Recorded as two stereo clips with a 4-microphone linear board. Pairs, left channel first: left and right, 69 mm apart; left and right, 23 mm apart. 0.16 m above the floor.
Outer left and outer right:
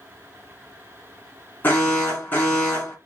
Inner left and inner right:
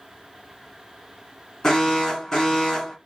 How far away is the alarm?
About 1.8 m.